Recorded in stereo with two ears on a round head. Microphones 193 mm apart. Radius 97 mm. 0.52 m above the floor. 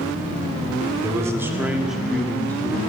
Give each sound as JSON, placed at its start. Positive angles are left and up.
{"t": 1.0, "sound": "a man speaking", "side_deg": -15, "distance_m": 1.6}